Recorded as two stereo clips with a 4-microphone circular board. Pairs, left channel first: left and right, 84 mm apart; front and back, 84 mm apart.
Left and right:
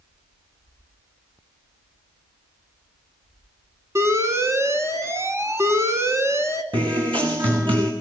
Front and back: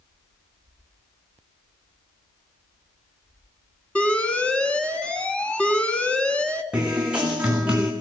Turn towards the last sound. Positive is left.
turn(degrees=-105)